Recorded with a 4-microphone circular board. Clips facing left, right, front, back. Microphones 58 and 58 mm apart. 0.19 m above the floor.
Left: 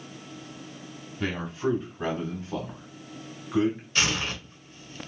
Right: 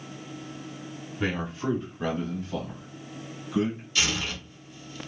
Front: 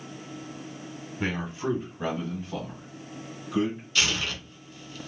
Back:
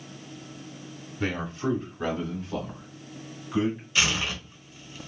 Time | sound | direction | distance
1.2 | a man speaking | 25° right | 1.1 m
4.0 | tearing paper | 115° left | 0.9 m